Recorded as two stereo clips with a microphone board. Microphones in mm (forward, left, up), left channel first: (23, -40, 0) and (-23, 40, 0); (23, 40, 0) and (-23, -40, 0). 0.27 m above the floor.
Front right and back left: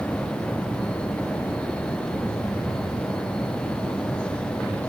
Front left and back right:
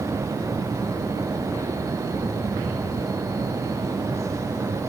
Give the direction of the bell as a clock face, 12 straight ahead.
No bell in this recording.